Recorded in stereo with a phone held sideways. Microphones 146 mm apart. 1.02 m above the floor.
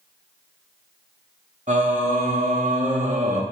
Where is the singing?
55° right (ahead or behind), 1.0 m.